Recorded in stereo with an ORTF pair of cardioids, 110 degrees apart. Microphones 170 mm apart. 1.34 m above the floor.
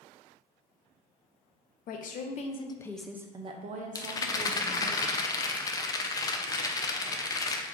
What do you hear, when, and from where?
1.9 s a woman speaking: 65° left, 0.9 m; by 5.0 s 70° right, 1.3 m
4.0 s a rattle: 20° left, 0.5 m